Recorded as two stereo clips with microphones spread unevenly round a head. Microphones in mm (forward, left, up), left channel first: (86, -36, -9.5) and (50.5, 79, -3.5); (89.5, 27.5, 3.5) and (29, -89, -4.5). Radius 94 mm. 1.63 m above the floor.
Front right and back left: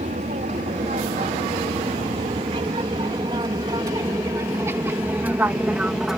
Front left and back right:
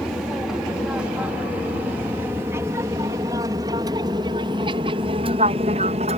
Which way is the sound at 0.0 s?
155° left.